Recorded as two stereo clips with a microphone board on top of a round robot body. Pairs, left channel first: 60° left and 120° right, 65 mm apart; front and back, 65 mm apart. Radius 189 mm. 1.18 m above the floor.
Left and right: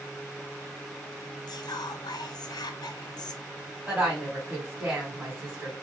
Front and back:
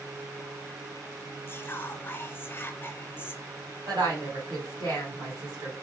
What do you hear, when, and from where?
1.5 s whispering: 60° left, 0.6 m
3.9 s a woman speaking: 175° left, 1.8 m